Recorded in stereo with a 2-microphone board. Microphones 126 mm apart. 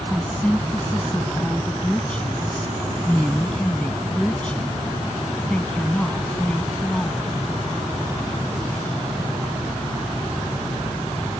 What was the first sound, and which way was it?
A woman speaking, 10° left (ahead or behind).